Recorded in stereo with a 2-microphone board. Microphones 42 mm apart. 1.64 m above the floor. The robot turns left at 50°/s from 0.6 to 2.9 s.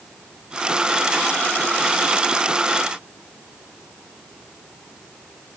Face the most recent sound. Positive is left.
No sound to turn to.